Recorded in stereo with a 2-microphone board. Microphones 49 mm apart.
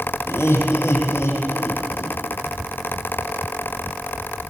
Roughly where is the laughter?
Left.